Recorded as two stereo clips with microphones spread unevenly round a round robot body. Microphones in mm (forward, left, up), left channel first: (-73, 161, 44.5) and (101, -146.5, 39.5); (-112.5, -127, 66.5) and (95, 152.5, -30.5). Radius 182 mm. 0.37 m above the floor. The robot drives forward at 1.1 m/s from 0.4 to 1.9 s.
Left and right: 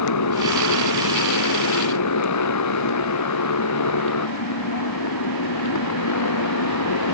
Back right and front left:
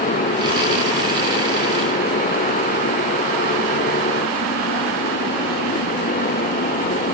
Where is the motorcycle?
165° left.